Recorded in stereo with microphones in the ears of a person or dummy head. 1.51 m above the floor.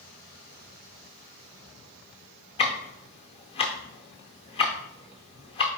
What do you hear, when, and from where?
2.6 s ticking: 25° left (ahead or behind), 0.6 m